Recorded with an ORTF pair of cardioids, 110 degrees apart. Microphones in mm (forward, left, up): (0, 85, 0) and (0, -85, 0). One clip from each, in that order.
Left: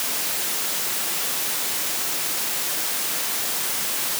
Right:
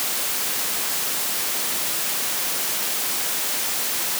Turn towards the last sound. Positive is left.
No sound to turn to.